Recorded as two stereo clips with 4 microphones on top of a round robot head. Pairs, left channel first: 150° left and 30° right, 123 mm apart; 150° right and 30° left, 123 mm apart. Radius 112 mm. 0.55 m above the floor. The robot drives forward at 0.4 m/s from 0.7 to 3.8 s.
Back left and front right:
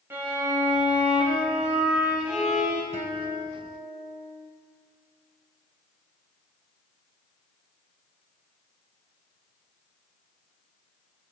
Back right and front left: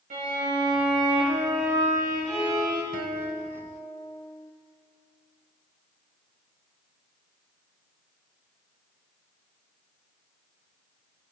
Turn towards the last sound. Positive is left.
turn(degrees=5)